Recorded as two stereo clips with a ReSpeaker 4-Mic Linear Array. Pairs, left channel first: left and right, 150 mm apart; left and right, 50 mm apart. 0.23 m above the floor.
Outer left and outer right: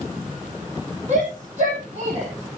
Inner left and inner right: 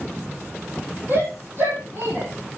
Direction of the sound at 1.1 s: 50° right (ahead or behind).